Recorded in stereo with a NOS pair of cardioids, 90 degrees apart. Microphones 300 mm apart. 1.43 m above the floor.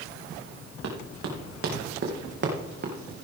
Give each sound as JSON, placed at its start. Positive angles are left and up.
{"t": 0.8, "sound": "running footsteps", "azimuth_deg": -55, "distance_m": 4.5}